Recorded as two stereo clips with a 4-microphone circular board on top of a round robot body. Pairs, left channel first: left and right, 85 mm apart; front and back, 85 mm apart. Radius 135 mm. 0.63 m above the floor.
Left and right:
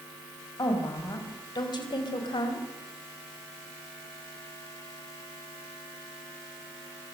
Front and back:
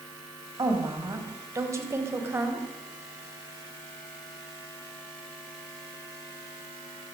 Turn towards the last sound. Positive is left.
turn(degrees=115)